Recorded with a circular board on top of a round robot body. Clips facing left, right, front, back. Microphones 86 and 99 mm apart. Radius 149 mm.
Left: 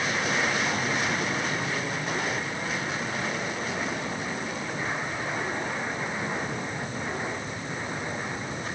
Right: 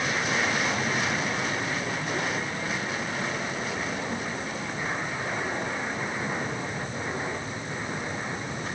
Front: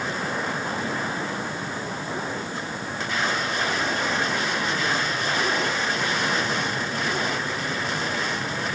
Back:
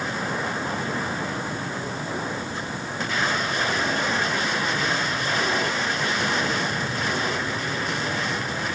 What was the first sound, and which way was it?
Only background noise.